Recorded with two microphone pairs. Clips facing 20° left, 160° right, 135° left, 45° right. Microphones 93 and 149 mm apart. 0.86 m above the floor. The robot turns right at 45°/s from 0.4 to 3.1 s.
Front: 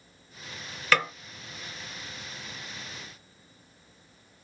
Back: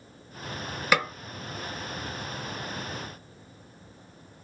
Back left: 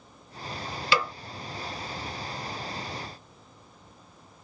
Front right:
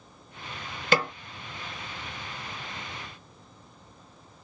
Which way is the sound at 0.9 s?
85° right.